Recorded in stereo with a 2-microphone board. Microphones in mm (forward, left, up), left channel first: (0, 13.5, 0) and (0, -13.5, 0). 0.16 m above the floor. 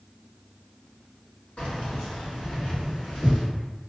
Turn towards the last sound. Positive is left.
turn(degrees=35)  # may be behind; listen again after turning